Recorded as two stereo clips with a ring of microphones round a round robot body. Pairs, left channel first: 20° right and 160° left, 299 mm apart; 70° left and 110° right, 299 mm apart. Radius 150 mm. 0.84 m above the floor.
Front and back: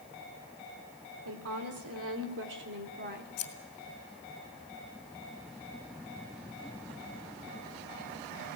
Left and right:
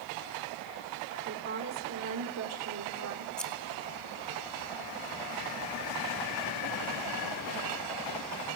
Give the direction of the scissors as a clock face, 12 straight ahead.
1 o'clock.